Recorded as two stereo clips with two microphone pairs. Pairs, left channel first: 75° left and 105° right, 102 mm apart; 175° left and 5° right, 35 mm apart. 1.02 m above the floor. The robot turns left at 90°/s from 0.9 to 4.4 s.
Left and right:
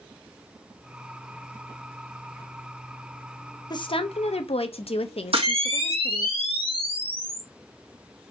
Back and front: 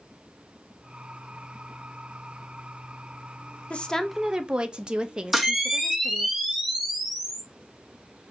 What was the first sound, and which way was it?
A woman speaking, 125° left.